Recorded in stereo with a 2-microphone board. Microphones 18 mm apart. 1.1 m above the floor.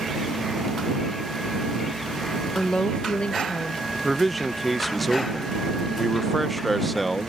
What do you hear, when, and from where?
2.5 s a woman speaking: 50° left (ahead or behind); by 3.8 s 70° left (ahead or behind)
3.9 s a man speaking: 5° left (ahead or behind)